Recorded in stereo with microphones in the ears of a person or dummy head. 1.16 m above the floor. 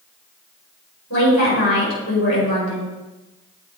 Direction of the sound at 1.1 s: 75° left (ahead or behind).